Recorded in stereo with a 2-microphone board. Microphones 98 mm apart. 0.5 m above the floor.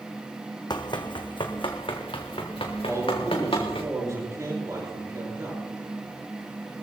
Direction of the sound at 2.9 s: 35° right (ahead or behind).